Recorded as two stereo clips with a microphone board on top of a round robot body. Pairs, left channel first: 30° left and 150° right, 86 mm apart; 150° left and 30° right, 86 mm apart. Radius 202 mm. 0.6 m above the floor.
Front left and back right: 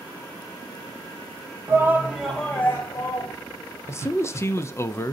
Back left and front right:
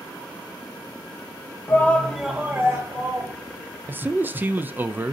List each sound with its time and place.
1.7 s a shout: 170° right, 0.9 m; by 3.3 s 5° right, 1.2 m
3.9 s a man speaking: 15° left, 0.6 m